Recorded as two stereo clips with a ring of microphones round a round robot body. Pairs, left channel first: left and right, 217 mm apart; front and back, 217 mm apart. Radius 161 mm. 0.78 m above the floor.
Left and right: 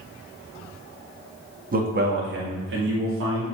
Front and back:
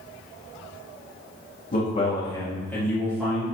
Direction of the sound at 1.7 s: 50° right.